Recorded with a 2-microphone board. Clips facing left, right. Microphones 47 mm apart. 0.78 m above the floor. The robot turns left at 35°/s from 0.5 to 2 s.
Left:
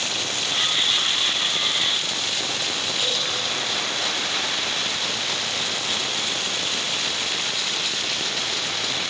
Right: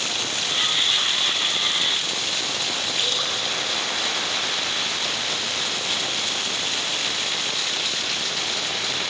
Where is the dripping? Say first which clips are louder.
Even; 55° right (ahead or behind), 8 m.